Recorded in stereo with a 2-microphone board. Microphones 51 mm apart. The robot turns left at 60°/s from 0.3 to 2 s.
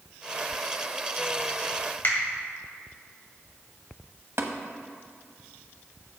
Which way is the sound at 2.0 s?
50° left (ahead or behind).